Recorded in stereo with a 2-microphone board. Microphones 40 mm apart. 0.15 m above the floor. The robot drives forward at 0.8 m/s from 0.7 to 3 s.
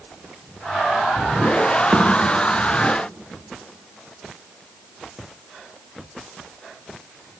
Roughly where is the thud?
Right.